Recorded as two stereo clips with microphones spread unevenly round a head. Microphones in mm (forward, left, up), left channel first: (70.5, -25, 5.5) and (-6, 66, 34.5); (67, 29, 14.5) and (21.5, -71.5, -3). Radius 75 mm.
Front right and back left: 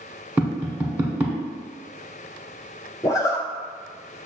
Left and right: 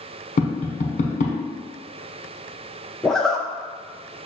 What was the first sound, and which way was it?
Tapping, 50° left.